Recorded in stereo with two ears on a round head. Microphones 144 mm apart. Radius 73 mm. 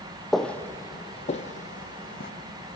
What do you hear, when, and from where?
0.3 s footsteps: centre (ahead or behind), 1.1 m; by 2.3 s 55° left (ahead or behind), 1.7 m